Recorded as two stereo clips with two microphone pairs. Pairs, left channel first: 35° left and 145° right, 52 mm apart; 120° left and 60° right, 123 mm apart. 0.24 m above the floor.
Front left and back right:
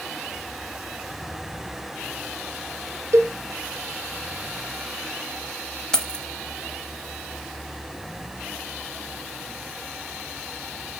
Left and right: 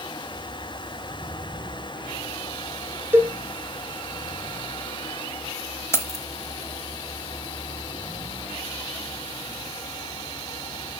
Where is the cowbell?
125° right, 0.5 m.